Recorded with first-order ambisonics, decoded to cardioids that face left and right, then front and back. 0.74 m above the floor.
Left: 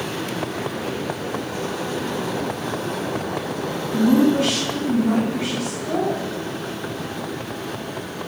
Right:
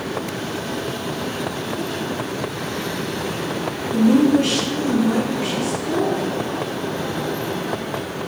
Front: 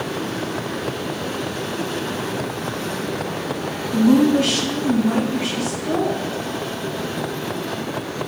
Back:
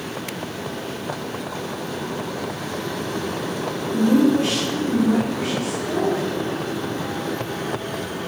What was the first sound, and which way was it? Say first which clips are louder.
A woman speaking: right 2 dB, front 2 dB; 45° left.